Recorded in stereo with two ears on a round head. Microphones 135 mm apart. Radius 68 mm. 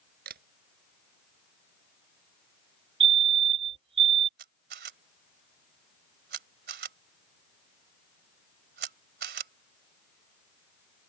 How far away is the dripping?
No dripping in this recording.